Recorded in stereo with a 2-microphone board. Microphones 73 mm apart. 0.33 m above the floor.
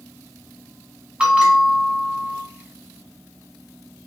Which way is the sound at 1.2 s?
10° right (ahead or behind).